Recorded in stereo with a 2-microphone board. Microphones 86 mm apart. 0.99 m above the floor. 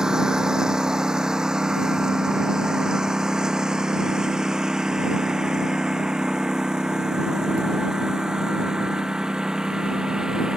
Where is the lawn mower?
5° right (ahead or behind).